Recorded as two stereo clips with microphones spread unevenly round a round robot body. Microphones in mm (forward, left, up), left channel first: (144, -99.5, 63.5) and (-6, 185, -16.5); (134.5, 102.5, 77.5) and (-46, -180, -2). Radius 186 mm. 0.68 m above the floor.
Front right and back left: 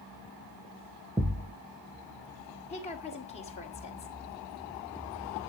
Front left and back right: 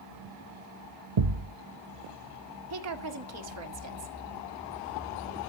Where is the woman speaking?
140° right, 1.8 m.